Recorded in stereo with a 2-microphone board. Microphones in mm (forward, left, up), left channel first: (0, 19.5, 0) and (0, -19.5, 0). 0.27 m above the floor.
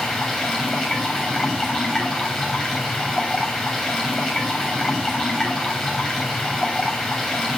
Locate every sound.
0.0 s running water: centre (ahead or behind), 6.5 m